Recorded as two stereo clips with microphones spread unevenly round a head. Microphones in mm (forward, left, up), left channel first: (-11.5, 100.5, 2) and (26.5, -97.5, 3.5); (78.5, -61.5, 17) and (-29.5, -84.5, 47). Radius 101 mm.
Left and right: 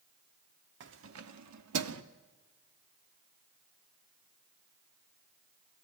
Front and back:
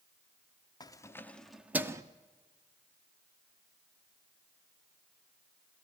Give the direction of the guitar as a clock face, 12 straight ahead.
I don't hear a guitar.